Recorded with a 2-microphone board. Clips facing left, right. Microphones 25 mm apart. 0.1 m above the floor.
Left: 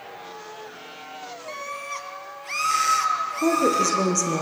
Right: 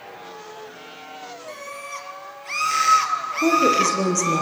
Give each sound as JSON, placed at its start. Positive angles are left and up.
{"t": 1.5, "sound": "a scream", "side_deg": 15, "distance_m": 2.5}
{"t": 3.4, "sound": "a woman speaking", "side_deg": 0, "distance_m": 2.5}